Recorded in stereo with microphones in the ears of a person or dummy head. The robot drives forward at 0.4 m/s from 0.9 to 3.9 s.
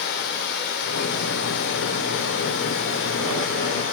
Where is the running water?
65° left (ahead or behind), 3 m; by 3.9 s 70° left (ahead or behind), 3 m.